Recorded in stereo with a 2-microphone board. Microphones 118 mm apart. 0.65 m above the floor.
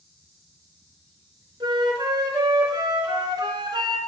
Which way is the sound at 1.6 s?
40° right (ahead or behind).